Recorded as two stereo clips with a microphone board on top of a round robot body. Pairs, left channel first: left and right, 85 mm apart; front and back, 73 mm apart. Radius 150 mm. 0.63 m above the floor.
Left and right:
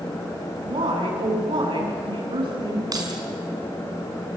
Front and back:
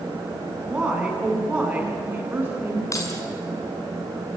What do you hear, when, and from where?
0.6 s a woman speaking: 100° right, 9 m; by 2.8 s 115° right, 9.5 m
2.9 s keys jangling: 45° right, 5 m